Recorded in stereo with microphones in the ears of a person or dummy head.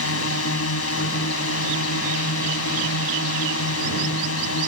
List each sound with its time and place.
0.0 s a drone: 80° left